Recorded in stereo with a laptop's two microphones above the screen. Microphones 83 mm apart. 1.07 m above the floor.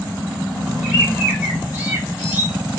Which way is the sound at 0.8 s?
15° right (ahead or behind).